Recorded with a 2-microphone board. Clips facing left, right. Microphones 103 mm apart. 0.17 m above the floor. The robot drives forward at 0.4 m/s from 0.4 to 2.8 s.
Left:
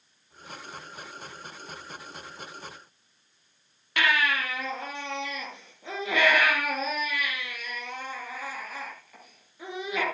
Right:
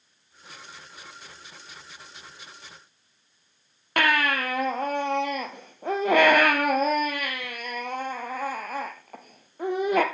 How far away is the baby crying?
About 2.5 m.